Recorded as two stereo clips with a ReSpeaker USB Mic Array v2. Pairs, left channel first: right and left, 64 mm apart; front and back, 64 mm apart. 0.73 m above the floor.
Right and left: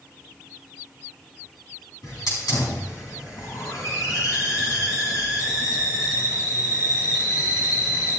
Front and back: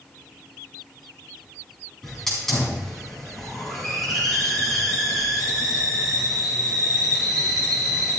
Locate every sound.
2.0 s a hiss: 80° right, 5 m